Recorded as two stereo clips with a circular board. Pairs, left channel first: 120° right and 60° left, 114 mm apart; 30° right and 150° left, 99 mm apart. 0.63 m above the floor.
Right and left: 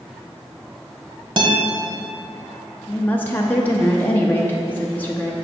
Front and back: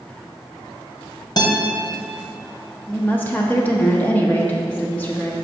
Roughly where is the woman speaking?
Right.